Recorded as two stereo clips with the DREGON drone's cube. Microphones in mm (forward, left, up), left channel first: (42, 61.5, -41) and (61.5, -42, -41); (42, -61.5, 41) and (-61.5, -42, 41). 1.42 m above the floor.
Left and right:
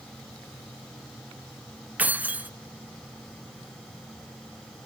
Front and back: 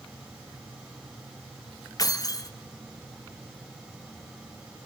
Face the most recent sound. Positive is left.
turn(degrees=-10)